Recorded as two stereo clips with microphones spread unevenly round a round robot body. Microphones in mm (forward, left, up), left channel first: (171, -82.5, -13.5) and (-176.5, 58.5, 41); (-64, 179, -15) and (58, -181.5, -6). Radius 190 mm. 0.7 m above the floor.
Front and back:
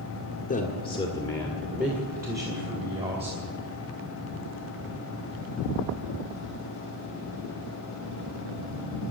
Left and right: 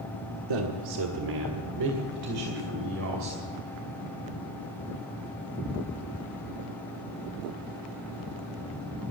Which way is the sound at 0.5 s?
85° right.